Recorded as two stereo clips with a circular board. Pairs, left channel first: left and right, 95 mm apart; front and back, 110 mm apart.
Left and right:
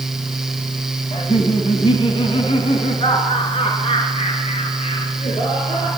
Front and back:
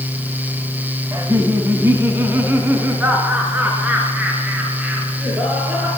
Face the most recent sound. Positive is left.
turn(degrees=100)